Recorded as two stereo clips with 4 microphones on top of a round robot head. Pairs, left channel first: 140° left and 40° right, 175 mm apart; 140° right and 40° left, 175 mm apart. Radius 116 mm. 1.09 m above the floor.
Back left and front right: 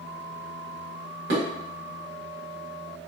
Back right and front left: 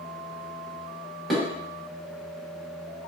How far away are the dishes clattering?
About 1.0 m.